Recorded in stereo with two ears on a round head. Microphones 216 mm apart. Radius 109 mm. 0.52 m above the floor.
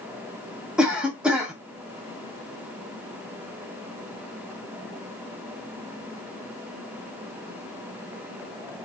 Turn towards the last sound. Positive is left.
turn(degrees=-5)  # may be behind; listen again after turning